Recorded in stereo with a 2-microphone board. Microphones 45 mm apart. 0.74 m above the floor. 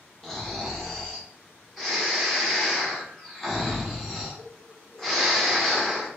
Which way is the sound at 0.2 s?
10° left (ahead or behind).